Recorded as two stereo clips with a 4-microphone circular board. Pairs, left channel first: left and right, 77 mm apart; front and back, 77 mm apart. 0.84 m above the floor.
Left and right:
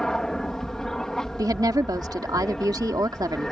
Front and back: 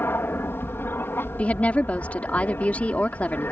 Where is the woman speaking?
70° right.